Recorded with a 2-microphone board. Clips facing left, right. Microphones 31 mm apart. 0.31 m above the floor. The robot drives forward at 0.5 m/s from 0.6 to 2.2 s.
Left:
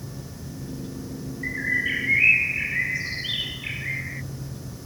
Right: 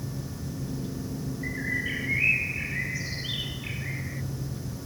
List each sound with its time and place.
1.4 s a bird: 25° left (ahead or behind)